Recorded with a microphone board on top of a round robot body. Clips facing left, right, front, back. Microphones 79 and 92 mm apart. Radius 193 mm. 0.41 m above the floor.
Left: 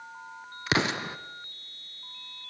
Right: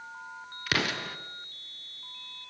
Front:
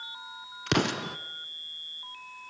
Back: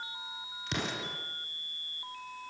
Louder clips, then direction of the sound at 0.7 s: Left 3 dB, front 9 dB; 25° left.